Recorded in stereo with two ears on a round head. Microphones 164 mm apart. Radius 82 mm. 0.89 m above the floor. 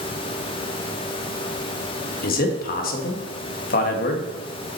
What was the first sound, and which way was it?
A man speaking, 50° left (ahead or behind).